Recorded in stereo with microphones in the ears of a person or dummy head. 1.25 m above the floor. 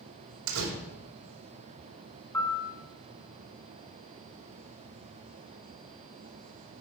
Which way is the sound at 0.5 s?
70° right (ahead or behind).